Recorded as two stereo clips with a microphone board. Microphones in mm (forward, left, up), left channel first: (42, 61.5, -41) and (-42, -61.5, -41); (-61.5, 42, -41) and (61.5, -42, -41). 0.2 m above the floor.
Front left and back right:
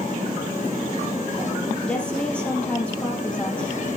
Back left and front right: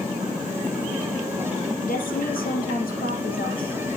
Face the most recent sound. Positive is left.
turn(degrees=140)